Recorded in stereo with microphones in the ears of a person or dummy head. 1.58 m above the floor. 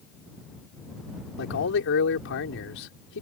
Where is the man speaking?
70° left (ahead or behind).